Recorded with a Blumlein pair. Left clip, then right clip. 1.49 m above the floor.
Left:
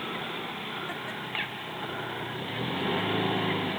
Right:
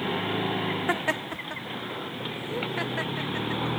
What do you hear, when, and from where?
0.9 s laughter: 60° right; by 3.8 s 30° right